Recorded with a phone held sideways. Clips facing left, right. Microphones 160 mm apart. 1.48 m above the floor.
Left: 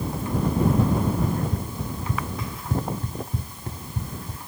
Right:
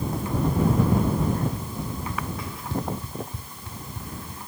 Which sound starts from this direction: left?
Running footsteps, at 1.2 s.